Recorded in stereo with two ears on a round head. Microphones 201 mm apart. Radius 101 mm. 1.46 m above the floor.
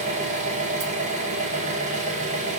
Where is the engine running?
30° right (ahead or behind), 0.8 m.